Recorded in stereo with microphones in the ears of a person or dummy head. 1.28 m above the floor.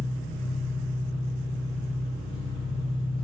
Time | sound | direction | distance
0.0 | an engine running | 60° left (ahead or behind) | 3 m